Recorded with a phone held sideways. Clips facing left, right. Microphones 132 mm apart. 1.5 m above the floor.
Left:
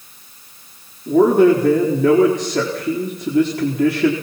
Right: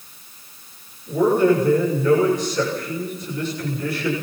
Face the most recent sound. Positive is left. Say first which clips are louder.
# left 5 dB
turn(degrees=75)  # may be behind; listen again after turning